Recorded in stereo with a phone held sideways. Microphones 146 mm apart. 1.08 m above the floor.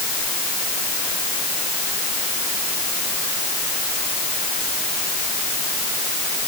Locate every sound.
Only background noise.